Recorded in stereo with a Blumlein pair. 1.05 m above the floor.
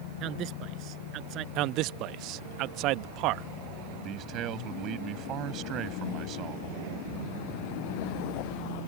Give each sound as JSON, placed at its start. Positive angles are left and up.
{"t": 0.2, "sound": "a man speaking", "azimuth_deg": -35}
{"t": 1.6, "sound": "a man speaking", "azimuth_deg": -40}
{"t": 3.9, "sound": "a man speaking", "azimuth_deg": -35}